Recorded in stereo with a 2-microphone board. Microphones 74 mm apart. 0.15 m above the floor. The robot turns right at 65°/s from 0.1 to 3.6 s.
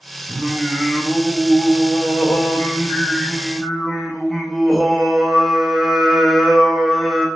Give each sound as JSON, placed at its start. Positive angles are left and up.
{"t": 0.3, "sound": "singing", "azimuth_deg": -40, "distance_m": 1.2}